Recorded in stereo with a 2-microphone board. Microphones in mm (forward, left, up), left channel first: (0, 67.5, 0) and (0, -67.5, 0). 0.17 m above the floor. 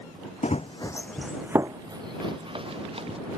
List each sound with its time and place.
0.4 s running footsteps: 60° left (ahead or behind); by 3.2 s 45° right (ahead or behind)